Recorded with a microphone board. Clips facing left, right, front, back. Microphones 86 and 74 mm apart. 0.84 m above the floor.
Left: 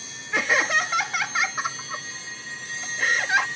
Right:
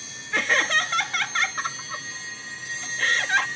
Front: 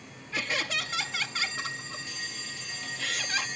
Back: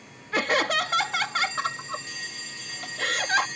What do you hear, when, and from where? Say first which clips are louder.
0.3 s laughter: left 1 dB, back 8 dB; 170° left